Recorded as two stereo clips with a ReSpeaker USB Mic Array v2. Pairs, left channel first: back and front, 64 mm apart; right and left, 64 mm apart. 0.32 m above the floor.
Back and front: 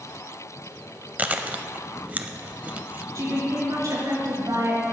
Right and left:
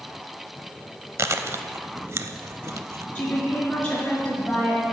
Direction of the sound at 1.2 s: 60° left.